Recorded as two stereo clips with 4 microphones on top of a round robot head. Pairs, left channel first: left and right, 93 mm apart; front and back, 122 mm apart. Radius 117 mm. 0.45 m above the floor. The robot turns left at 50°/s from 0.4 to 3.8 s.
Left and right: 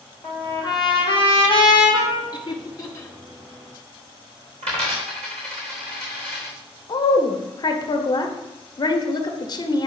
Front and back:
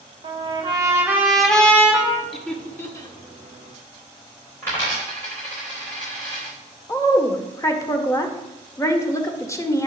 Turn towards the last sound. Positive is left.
turn(degrees=60)